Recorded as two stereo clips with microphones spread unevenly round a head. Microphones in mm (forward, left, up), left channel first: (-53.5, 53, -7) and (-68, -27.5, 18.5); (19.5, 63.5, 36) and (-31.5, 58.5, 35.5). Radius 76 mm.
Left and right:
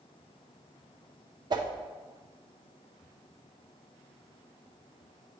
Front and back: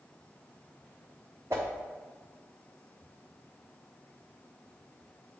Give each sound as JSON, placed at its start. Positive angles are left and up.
{"t": 1.5, "sound": "a whoosh", "azimuth_deg": -115, "distance_m": 0.7}